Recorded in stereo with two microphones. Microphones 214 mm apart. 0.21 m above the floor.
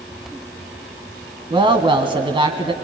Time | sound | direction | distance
1.5 | a woman speaking | 25° right (ahead or behind) | 1.4 m